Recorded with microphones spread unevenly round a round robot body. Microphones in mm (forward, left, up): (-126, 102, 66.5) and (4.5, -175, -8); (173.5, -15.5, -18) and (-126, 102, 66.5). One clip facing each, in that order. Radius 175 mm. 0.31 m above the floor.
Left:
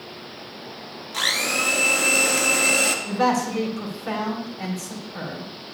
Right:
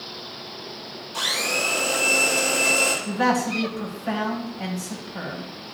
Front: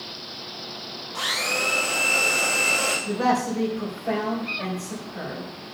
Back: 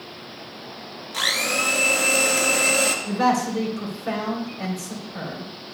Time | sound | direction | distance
1.1 | a blender | 165° left | 1.9 m
3.0 | a man speaking | 165° left | 2.5 m